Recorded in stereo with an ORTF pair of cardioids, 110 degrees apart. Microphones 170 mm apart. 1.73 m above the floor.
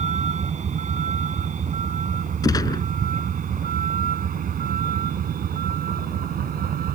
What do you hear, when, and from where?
0.0 s a vehicle: 45° right; by 7.0 s 60° right
2.4 s a gunshot: 20° left